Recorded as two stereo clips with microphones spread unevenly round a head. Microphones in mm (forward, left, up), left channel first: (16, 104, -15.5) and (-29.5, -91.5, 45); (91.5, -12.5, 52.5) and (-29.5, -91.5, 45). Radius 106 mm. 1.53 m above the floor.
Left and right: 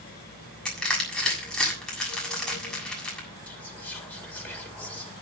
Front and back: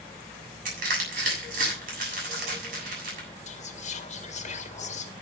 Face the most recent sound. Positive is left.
turn(degrees=-5)